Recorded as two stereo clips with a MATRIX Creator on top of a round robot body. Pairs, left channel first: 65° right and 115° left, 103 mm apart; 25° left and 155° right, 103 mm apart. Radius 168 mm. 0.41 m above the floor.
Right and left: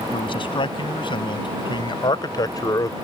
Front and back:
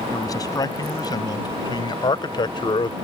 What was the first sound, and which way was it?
A man speaking, 30° right.